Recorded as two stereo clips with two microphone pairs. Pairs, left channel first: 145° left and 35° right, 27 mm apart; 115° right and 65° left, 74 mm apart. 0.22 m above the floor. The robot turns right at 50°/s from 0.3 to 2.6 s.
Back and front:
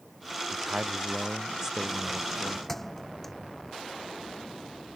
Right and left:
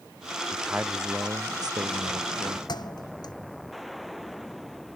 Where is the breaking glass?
I don't hear breaking glass.